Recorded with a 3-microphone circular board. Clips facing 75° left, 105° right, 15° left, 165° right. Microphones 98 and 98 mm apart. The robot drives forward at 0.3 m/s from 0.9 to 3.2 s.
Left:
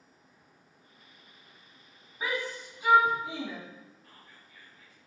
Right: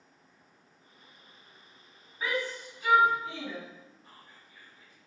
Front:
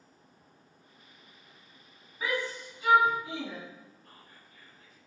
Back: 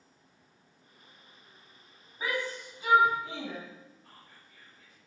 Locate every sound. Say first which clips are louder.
2.2 s a shout: right 1 dB, front 1 dB; 135° left, 2.5 m; by 3.6 s 140° left, 2.5 m
4.0 s whispering: right 1 dB, front 1 dB; 170° right, 4 m